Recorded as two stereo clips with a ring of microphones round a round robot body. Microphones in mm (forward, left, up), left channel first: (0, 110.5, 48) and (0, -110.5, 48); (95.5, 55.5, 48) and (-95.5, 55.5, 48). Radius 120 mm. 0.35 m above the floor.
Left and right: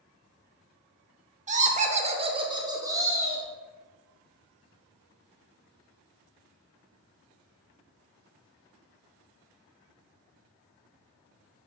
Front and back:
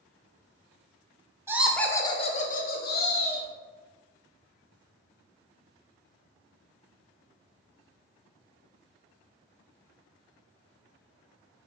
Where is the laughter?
115° right, 0.9 m; by 3.5 s 10° right, 1.7 m.